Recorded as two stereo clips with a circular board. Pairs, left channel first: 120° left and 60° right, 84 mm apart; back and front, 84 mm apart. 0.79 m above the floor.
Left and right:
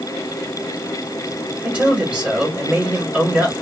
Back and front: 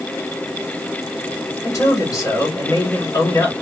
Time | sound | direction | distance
1.6 | a man speaking | 135° right | 1.8 m